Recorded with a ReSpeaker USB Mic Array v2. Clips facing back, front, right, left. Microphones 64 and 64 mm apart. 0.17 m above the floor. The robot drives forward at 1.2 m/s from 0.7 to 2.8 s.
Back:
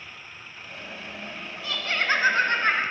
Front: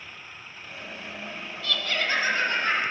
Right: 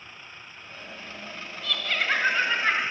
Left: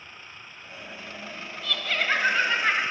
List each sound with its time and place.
1.6 s laughter: straight behind, 1.1 m